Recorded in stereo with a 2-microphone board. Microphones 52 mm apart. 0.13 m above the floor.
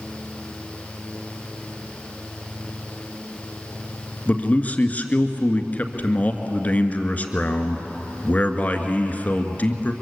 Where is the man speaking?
30° left (ahead or behind), 1.7 m.